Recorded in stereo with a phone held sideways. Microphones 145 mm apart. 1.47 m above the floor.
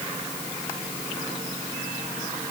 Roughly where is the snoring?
No snoring in this recording.